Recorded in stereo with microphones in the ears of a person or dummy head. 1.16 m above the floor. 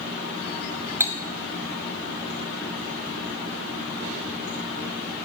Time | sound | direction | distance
1.0 | cutlery clinking | 10° right (ahead or behind) | 0.9 m